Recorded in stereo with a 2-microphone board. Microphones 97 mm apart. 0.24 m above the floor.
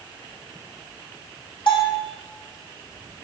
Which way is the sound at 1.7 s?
65° left (ahead or behind).